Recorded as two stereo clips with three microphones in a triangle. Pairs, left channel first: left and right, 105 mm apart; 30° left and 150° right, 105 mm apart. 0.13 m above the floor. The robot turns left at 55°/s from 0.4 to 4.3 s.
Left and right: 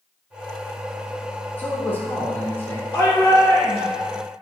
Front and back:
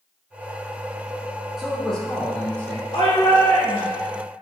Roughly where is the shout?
Ahead.